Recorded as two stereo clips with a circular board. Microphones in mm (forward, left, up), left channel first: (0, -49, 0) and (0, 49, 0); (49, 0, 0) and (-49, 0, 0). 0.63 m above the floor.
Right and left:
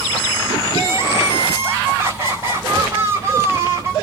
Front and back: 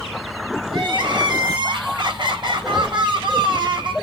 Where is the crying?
150° left, 3.5 m.